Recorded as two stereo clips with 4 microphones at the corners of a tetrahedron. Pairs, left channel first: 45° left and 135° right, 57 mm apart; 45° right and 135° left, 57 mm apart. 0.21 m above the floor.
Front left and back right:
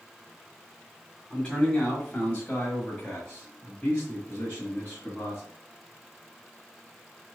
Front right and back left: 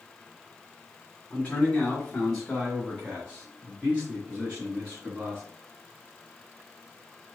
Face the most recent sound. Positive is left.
turn(degrees=100)